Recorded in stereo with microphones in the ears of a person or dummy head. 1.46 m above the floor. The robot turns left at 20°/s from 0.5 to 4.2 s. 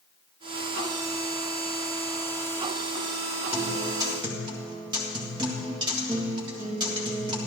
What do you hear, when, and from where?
3.5 s a guitar: 15° right (ahead or behind), 1.9 m; by 7.5 s 30° right (ahead or behind), 1.9 m